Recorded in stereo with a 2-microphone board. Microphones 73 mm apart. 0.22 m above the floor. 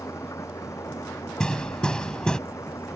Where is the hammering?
10° left (ahead or behind).